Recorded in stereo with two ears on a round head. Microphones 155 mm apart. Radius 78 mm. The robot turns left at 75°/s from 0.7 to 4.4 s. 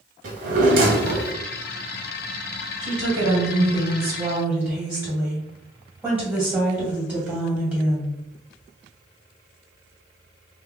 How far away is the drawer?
About 1.4 m.